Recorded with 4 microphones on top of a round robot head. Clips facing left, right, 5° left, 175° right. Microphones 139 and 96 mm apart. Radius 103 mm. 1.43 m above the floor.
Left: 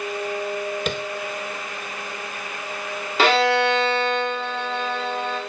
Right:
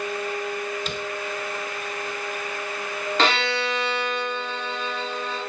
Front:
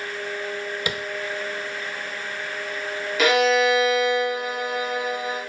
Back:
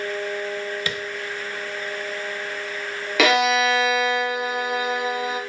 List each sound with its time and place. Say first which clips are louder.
0.9 s tapping: left 5 dB, front 1 dB; 75° left, 1.1 m
3.2 s a violin: left 7 dB, even; 175° left, 3 m